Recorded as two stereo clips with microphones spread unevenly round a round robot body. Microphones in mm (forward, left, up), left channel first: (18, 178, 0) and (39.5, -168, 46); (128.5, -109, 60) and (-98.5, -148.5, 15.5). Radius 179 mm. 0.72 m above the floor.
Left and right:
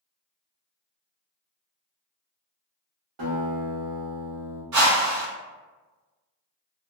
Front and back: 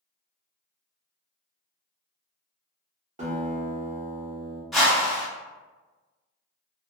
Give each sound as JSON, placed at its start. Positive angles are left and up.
{"t": 3.2, "sound": "a guitar", "azimuth_deg": -110, "distance_m": 1.2}
{"t": 4.7, "sound": "a whoosh", "azimuth_deg": -95, "distance_m": 1.2}